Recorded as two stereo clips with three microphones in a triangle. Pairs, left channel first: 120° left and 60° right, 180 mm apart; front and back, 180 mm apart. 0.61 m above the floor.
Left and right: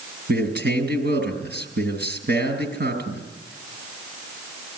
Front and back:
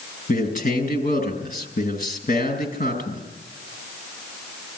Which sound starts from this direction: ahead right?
A man speaking, at 0.3 s.